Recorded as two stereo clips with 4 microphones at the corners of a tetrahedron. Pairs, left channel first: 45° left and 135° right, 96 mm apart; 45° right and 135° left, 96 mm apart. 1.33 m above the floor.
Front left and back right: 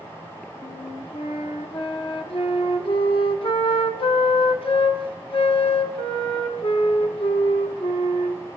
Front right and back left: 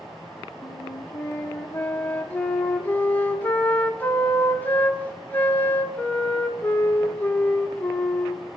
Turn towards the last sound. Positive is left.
turn(degrees=25)